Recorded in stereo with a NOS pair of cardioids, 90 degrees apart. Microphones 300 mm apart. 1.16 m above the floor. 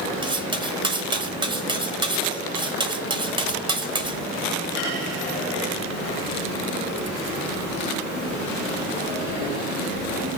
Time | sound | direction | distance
0.2 | cutlery clinking | 15° right | 0.6 m